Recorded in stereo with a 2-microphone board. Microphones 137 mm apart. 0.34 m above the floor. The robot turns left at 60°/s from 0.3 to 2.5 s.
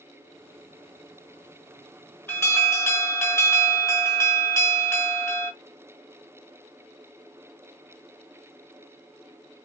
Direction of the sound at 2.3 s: 15° left (ahead or behind).